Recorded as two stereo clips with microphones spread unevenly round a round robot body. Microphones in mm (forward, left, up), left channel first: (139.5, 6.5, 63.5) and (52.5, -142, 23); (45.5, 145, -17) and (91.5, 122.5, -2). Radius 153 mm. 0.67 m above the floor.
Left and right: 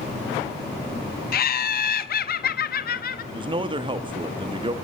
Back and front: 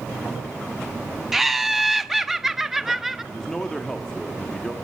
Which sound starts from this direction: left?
Laughter, at 1.3 s.